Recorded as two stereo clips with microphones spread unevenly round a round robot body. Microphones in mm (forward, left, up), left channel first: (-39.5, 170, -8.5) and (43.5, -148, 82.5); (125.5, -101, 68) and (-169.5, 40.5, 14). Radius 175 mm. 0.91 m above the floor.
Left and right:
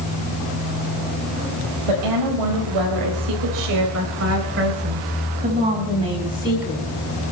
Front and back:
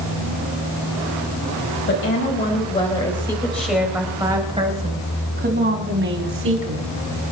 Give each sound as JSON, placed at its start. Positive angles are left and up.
{"t": 1.9, "sound": "a woman speaking", "azimuth_deg": -80, "distance_m": 5.0}